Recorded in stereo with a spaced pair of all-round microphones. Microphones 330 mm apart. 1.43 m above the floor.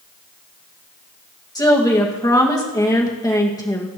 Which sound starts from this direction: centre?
A woman speaking, at 1.6 s.